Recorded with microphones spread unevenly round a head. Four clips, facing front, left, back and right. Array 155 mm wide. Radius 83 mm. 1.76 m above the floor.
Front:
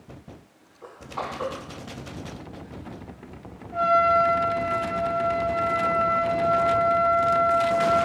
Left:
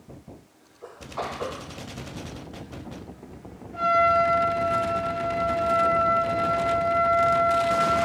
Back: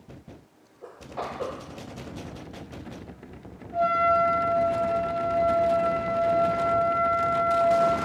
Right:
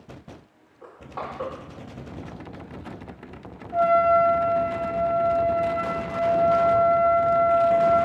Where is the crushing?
100° right, 2.5 m.